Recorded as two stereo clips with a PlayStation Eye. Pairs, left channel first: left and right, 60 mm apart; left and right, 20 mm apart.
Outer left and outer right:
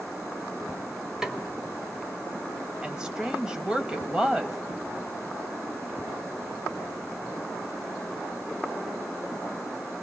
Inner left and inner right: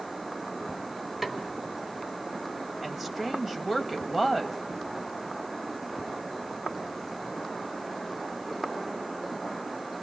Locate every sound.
1.2 s a snare drum: 10° right (ahead or behind), 1.6 m
2.8 s a woman speaking: 15° right (ahead or behind), 1.5 m